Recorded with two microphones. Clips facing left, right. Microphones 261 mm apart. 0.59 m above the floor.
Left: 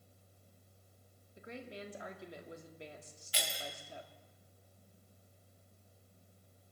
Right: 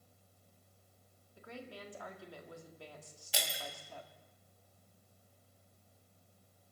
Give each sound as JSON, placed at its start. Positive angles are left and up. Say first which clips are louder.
{"t": 1.4, "sound": "a woman speaking", "louder": "left 2 dB", "side_deg": 20, "distance_m": 1.4}
{"t": 3.3, "sound": "breaking glass", "louder": "right 1 dB", "side_deg": -75, "distance_m": 1.9}